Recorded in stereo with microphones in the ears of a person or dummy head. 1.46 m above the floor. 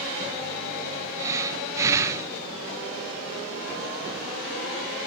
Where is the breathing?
20° right (ahead or behind), 0.6 m.